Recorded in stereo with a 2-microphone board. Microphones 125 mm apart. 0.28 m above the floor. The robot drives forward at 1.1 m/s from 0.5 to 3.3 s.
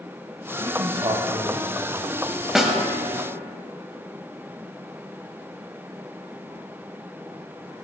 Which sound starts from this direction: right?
A man speaking, at 0.6 s.